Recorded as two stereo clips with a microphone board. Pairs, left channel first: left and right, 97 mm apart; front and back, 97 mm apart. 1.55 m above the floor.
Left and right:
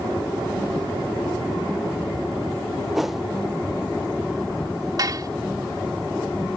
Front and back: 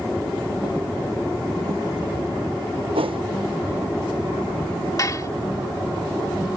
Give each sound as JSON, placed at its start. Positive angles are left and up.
{"t": 3.0, "sound": "a whoosh", "azimuth_deg": -175}
{"t": 5.0, "sound": "dishes clattering", "azimuth_deg": -50}